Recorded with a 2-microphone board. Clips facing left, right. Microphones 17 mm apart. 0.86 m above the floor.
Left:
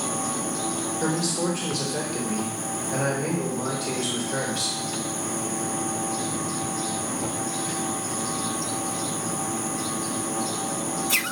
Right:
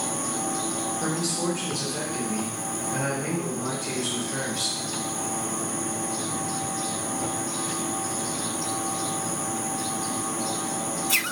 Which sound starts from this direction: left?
A man speaking, at 1.0 s.